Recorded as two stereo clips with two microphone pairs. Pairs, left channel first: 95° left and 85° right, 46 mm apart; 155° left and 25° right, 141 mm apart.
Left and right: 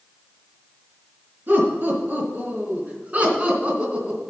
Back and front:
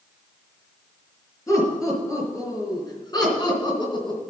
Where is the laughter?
140° right, 4.5 m; by 4.2 s 155° right, 3 m.